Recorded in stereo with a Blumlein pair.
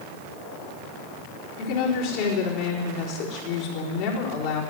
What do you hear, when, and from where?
1.6 s a woman speaking: 45° left, 4.5 m